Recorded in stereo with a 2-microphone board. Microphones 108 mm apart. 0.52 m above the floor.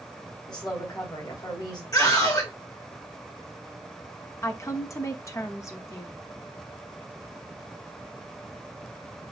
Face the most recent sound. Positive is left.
turn(degrees=25)  # may be behind; listen again after turning